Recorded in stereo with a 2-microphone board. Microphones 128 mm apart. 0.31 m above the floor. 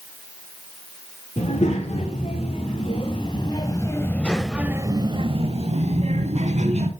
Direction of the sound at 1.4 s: 55° left (ahead or behind).